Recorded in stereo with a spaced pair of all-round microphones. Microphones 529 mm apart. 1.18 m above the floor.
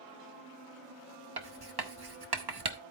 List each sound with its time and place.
1.4 s writing: 45° right (ahead or behind), 0.8 m